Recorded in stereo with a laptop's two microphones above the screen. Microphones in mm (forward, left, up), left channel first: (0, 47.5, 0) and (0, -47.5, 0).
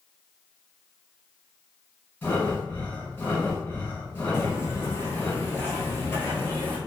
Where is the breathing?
25° left (ahead or behind), 1.4 m.